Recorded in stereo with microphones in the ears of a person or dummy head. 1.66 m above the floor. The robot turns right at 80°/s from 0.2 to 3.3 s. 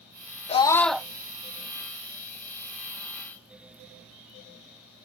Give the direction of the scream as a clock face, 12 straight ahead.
7 o'clock.